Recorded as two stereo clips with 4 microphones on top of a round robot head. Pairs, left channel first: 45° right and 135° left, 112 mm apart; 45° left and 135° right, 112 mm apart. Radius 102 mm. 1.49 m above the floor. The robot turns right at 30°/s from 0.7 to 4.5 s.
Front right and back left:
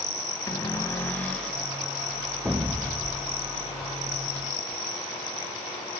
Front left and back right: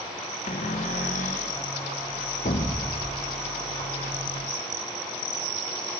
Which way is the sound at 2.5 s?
55° left.